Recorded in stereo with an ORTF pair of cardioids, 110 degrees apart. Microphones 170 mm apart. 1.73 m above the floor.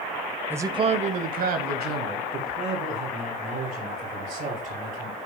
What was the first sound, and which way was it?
A man speaking, 10° right.